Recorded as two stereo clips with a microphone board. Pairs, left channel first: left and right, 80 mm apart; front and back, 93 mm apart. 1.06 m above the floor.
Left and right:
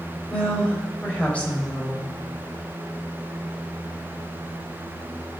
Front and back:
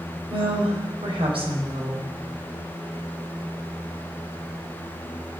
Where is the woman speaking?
165° left, 4.5 m.